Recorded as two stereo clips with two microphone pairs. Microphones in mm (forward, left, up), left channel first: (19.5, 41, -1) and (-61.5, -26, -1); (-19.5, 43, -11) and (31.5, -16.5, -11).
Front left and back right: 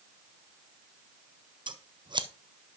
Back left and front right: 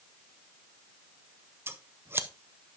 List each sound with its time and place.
1.7 s scissors: 105° right, 0.7 m